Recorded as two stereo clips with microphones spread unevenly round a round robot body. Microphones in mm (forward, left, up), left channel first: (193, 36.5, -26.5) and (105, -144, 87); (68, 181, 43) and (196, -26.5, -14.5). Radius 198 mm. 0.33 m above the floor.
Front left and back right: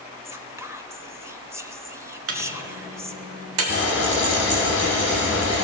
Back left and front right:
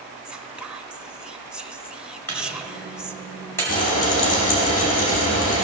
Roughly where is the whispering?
Ahead.